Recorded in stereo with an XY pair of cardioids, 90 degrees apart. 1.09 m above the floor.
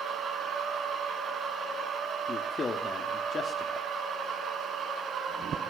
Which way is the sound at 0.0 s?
55° right.